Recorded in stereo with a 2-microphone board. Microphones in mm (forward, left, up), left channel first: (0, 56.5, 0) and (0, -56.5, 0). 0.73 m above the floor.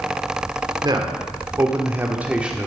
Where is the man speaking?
40° right (ahead or behind), 1.9 m; by 2.7 s 5° right (ahead or behind), 1.6 m.